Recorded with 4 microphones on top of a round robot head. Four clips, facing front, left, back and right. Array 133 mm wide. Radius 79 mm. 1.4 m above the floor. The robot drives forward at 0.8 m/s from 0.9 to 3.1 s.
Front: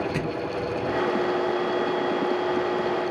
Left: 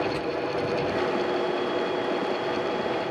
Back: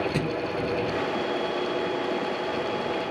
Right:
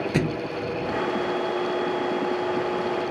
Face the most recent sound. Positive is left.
turn(degrees=-105)